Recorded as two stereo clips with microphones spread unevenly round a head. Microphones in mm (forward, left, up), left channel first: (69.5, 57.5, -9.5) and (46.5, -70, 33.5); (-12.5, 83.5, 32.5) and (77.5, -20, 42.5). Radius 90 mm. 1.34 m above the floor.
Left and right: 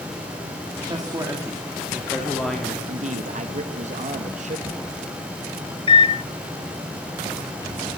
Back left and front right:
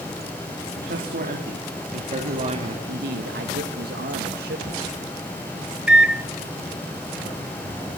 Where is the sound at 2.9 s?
70° right, 1.9 m.